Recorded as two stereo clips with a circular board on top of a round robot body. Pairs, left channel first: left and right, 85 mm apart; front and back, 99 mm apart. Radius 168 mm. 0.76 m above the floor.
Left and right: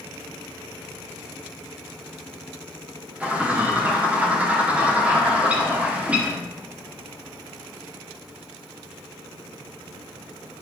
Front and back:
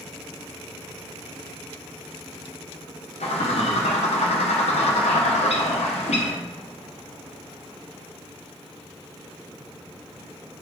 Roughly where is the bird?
Ahead.